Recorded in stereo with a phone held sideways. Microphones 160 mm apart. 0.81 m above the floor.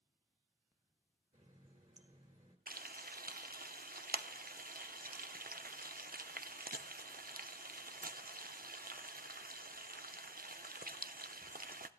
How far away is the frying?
About 0.6 m.